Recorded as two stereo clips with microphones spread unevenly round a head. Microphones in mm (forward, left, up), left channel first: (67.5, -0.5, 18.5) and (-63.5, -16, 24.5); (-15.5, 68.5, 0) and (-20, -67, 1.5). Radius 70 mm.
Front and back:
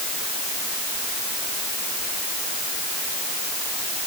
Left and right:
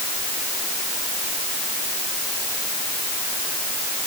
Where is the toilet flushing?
I don't hear a toilet flushing.